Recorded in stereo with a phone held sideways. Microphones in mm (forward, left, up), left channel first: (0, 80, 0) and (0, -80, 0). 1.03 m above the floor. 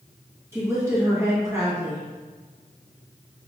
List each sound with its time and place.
0.5 s a woman speaking: 15° right (ahead or behind), 1.1 m